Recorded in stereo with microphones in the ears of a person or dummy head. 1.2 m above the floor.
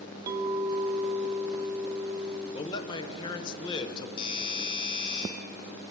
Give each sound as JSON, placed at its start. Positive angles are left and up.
{"t": 0.3, "sound": "a clink", "side_deg": -20, "distance_m": 0.8}
{"t": 2.5, "sound": "a man speaking", "side_deg": 20, "distance_m": 0.7}
{"t": 4.2, "sound": "a doorbell", "side_deg": 30, "distance_m": 4.5}